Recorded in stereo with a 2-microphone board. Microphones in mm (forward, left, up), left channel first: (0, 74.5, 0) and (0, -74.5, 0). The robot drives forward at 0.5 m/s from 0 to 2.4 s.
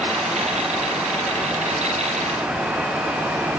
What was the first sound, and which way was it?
Only background noise.